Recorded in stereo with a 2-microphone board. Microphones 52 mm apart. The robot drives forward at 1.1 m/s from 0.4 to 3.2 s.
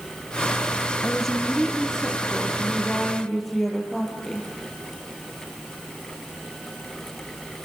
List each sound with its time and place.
1.0 s a woman speaking: 5° left (ahead or behind), 3 m; by 4.5 s centre (ahead or behind), 5.5 m